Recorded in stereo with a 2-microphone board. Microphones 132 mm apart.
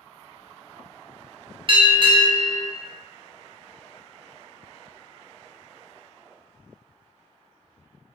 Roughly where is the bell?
Right.